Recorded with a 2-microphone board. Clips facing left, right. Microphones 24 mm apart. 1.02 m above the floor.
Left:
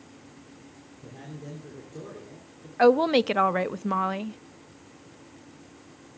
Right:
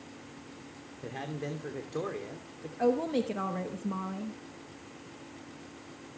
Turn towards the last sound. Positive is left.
turn(degrees=75)  # may be behind; listen again after turning